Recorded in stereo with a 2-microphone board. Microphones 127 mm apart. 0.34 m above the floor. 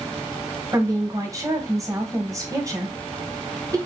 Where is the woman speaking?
25° right (ahead or behind), 1.7 m.